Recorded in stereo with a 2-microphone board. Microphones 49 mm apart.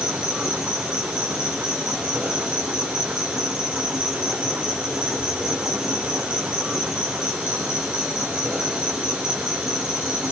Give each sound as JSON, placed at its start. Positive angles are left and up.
{"t": 0.0, "sound": "an insect", "side_deg": -20, "distance_m": 2.5}